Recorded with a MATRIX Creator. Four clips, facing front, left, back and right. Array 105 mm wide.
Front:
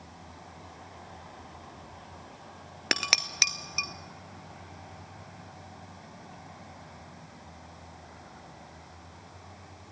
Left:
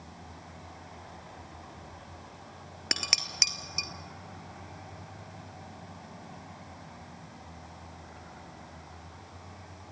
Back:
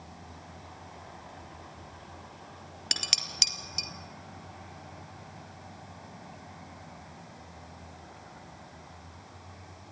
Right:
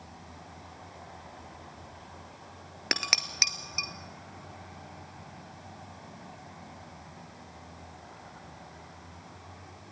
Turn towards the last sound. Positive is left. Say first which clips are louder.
# right 3 dB, front 10 dB
turn(degrees=-20)